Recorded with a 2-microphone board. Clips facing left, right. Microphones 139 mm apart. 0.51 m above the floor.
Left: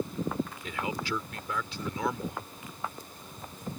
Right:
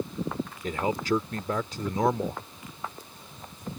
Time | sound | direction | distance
0.6 | a man speaking | 45° right (ahead or behind) | ?